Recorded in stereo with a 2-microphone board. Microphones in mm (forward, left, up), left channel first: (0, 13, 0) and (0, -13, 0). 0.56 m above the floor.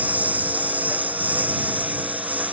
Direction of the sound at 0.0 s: 80° right.